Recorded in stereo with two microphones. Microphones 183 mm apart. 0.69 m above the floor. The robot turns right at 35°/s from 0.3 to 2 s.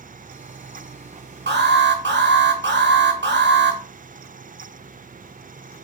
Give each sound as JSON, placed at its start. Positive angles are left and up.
{"t": 1.5, "sound": "an alarm", "side_deg": -75, "distance_m": 1.1}